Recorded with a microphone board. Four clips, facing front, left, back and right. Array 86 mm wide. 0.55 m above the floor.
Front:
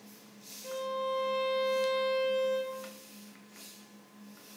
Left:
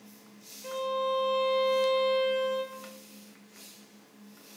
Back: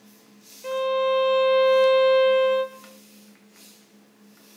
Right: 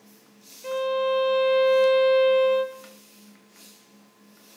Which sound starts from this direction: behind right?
A violin, at 0.6 s.